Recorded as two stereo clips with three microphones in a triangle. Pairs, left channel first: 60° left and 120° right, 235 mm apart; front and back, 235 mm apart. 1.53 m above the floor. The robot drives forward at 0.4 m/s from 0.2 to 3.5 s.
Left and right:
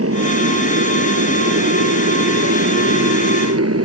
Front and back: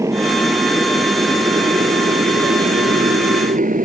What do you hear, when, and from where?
0.0 s a motorcycle: 100° right; by 3.9 s 125° right